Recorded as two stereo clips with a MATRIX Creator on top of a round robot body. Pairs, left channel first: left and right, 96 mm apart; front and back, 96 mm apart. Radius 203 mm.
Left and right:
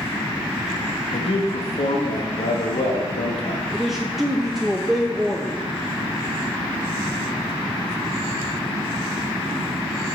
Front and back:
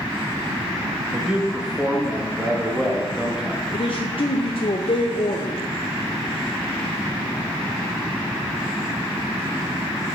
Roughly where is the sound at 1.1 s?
Left.